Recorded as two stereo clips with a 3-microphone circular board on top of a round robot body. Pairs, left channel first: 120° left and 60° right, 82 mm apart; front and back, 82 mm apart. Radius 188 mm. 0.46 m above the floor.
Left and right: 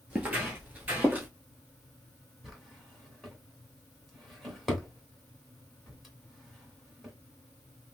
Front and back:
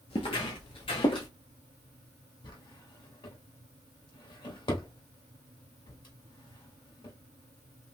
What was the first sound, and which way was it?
Footsteps, 10° left.